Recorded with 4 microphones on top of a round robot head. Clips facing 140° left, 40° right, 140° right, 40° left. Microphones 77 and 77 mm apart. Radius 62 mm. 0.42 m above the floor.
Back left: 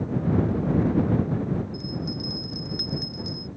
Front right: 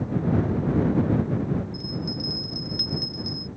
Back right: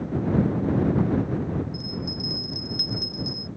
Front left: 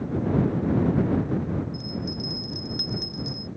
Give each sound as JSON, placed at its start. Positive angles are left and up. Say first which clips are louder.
{"t": 1.7, "sound": "a bell", "louder": "even, front left 1 dB", "azimuth_deg": 85}